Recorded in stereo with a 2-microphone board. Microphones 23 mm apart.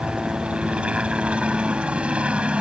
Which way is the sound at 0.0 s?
65° right (ahead or behind).